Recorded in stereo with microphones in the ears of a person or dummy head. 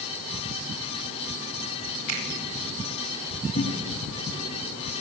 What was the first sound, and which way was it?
A finger snap, 90° right.